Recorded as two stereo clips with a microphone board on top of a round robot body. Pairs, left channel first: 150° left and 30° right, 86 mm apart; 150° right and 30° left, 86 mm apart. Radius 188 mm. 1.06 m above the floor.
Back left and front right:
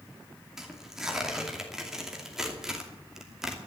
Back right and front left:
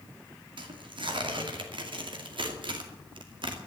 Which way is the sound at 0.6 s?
55° left.